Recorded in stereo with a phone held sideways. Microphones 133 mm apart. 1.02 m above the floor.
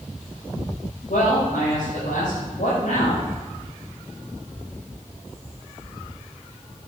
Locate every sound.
1.1 s a man speaking: 85° left, 5.5 m